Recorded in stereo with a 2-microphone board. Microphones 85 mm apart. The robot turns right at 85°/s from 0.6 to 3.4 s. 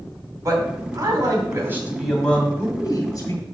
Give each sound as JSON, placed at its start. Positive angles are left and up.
{"t": 0.5, "sound": "a man speaking", "azimuth_deg": -125, "distance_m": 2.5}